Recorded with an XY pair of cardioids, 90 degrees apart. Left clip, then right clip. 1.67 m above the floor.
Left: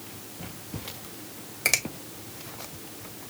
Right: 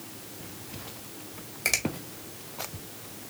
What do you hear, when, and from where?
1.6 s a finger snap: 25° left, 2 m